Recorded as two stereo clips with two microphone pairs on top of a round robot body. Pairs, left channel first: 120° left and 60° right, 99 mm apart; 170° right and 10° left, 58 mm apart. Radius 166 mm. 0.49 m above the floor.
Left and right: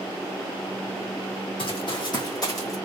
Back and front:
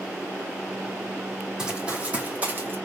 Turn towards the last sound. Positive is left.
turn(degrees=60)